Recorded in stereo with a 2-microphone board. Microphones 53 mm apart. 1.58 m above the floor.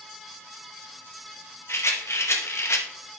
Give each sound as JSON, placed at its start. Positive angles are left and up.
{"t": 1.7, "sound": "a rattle", "side_deg": 55, "distance_m": 1.1}